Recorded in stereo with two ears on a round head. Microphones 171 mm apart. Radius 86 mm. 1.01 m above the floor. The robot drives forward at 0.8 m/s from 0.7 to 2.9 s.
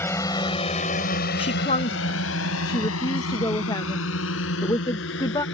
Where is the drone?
10° left (ahead or behind); by 5.5 s 65° left (ahead or behind).